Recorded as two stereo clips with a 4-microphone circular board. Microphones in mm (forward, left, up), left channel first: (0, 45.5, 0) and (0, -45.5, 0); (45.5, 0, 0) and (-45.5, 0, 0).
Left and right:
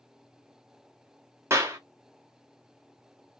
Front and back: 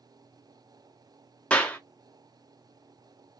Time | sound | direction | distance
1.5 | a clap | 65° right | 0.9 m